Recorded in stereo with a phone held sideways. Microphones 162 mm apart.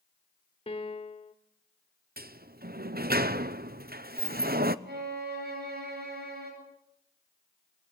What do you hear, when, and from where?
0.7 s a piano: 35° left (ahead or behind), 1.3 m
2.2 s a sliding door: 70° right (ahead or behind), 0.9 m
4.8 s a violin: 85° right, 9.5 m